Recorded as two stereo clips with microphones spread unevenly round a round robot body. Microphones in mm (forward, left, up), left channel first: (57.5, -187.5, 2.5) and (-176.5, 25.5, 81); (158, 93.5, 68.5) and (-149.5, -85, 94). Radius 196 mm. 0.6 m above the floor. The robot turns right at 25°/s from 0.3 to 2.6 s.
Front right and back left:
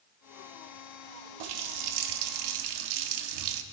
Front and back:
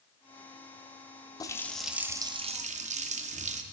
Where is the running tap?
110° left, 0.7 m; by 3.6 s 140° left, 0.7 m.